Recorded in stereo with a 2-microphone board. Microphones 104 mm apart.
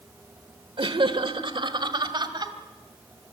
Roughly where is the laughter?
Right.